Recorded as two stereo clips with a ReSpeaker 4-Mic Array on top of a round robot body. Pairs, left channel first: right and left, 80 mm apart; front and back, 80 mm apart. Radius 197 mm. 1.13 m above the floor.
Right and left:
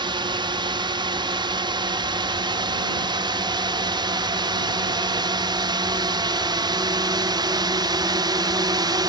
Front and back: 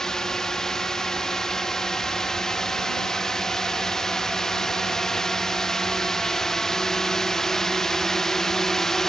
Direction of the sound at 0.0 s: 85° left.